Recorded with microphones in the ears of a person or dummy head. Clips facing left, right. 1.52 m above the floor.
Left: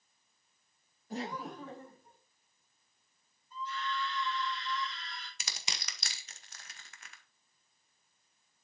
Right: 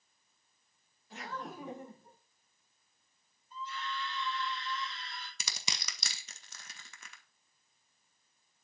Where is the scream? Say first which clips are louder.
Left 3 dB; 25° right (ahead or behind), 5.5 m.